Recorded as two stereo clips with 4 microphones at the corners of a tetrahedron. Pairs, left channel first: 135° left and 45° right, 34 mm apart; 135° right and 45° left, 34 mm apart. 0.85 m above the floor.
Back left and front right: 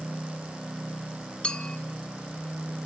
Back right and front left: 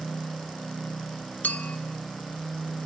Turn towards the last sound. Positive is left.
turn(degrees=-165)